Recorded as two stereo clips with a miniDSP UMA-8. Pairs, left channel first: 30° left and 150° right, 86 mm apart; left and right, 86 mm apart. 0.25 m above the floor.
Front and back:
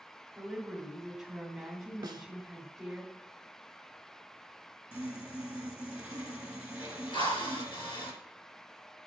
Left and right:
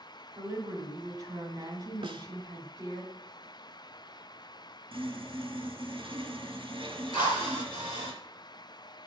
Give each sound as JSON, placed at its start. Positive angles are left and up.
{"t": 0.3, "sound": "a woman speaking", "azimuth_deg": -65, "distance_m": 2.0}
{"t": 2.0, "sound": "a snare drum", "azimuth_deg": -110, "distance_m": 0.6}
{"t": 4.9, "sound": "sawing", "azimuth_deg": -80, "distance_m": 1.7}
{"t": 7.1, "sound": "a drill", "azimuth_deg": 55, "distance_m": 3.5}